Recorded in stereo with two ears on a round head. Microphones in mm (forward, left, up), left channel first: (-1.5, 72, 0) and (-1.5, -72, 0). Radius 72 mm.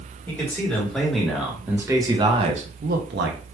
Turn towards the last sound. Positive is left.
turn(degrees=-75)  # may be behind; listen again after turning